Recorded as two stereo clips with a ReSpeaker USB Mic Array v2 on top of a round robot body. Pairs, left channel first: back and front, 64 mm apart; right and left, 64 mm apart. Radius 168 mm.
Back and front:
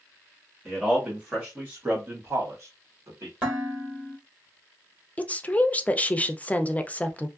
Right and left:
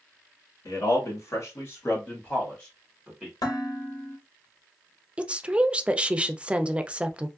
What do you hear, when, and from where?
0.7 s a man speaking: 85° right, 1.7 m; by 3.3 s 10° left, 1.4 m
3.4 s dishes clattering: 70° right, 1.5 m
5.2 s a woman speaking: 140° left, 0.6 m